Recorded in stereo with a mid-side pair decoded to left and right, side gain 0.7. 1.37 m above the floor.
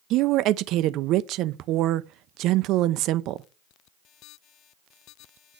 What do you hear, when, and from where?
0.1 s a woman speaking: 55° right, 0.5 m